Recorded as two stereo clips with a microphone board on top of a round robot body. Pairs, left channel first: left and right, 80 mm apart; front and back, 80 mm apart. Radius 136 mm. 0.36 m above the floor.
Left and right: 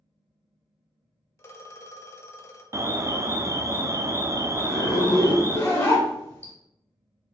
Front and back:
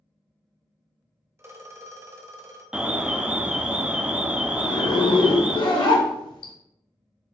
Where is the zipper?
30° left, 0.6 m.